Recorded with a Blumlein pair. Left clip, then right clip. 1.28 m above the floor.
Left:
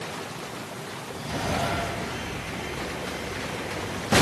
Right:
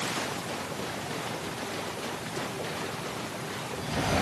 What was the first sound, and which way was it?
Only background noise.